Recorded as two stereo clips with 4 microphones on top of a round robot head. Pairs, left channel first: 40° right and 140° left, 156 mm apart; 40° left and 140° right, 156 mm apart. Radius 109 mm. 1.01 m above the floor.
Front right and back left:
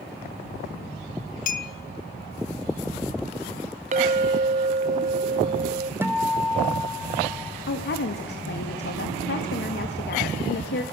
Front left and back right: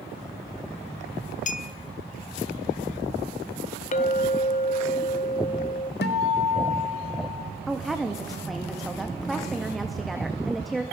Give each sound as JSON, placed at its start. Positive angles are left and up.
{"t": 1.5, "sound": "a clink", "azimuth_deg": -5, "distance_m": 0.8}
{"t": 3.9, "sound": "a clink", "azimuth_deg": 90, "distance_m": 0.7}
{"t": 6.0, "sound": "a guitar", "azimuth_deg": 60, "distance_m": 1.4}
{"t": 7.7, "sound": "a woman speaking", "azimuth_deg": -50, "distance_m": 1.6}